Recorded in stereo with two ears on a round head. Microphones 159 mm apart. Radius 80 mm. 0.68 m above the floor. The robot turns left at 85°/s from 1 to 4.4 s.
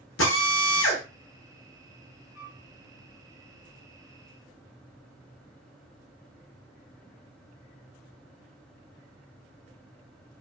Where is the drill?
80° left, 1.0 m.